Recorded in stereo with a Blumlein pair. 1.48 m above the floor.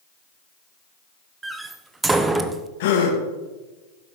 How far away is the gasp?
About 2 m.